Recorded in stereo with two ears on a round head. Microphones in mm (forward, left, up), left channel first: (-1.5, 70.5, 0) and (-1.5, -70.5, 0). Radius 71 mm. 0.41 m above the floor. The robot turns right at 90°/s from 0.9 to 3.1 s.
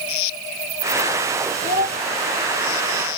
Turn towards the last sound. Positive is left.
turn(degrees=-10)